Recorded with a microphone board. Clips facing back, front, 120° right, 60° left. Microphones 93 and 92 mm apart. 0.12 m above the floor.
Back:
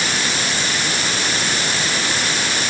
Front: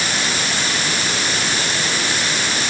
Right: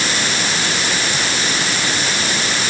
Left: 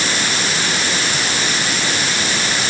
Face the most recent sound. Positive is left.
No sound to turn to.